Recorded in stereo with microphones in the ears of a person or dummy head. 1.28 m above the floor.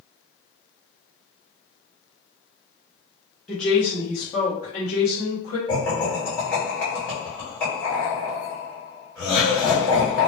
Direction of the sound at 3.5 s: Centre (ahead or behind).